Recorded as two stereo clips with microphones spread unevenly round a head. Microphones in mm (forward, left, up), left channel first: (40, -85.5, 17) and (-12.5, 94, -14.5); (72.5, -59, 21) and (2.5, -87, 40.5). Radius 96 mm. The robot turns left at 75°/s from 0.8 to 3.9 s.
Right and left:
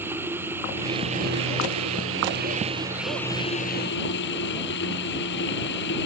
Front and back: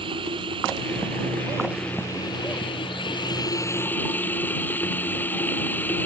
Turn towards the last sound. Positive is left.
turn(degrees=-45)